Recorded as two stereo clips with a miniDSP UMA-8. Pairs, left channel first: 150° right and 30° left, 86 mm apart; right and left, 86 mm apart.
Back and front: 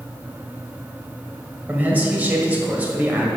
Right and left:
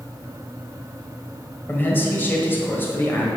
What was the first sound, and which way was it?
A man speaking, 35° right.